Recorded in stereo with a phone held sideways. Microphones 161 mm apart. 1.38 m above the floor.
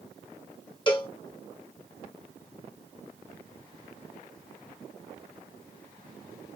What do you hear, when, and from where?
0.9 s a cowbell: 30° left (ahead or behind), 0.7 m